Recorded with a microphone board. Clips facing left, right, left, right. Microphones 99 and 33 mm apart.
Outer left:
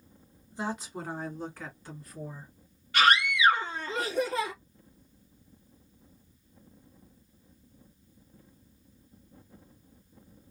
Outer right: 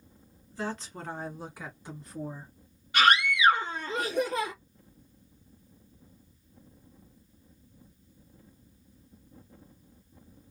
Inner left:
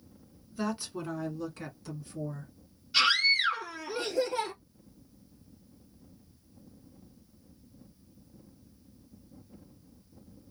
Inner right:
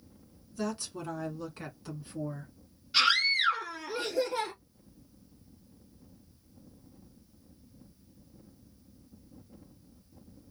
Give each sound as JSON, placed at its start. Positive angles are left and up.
{"t": 0.5, "sound": "a woman speaking", "side_deg": 20, "distance_m": 1.7}
{"t": 2.9, "sound": "a scream", "side_deg": -20, "distance_m": 2.0}